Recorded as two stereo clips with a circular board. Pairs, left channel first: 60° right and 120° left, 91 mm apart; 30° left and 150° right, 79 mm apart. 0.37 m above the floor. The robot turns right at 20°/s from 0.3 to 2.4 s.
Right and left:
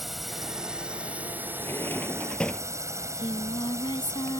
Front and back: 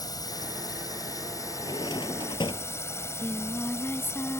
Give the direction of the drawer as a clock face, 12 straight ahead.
12 o'clock.